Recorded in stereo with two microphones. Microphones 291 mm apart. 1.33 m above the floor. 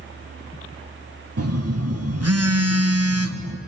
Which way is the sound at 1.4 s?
60° right (ahead or behind).